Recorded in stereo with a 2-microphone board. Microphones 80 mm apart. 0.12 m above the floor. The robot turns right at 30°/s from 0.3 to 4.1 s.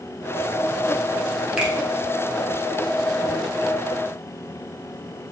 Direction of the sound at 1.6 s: 15° right (ahead or behind).